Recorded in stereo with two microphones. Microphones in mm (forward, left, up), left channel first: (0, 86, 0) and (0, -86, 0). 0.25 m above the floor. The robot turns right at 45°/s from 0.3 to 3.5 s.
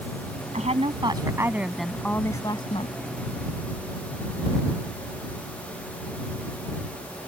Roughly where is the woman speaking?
Ahead right.